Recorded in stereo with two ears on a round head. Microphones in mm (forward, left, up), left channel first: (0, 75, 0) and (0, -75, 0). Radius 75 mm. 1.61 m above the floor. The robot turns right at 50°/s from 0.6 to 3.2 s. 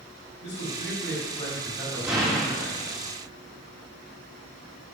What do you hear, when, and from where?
0.4 s a man speaking: 110° left, 5.5 m; by 2.7 s 145° right, 5.5 m
2.0 s an explosion: 10° right, 3 m; by 2.9 s 35° left, 3 m